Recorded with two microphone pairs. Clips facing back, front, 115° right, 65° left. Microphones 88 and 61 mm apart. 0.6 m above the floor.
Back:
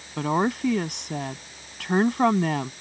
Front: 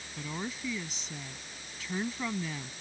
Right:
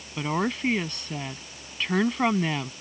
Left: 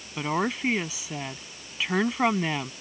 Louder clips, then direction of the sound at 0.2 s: Back 15 dB, even; 155° left.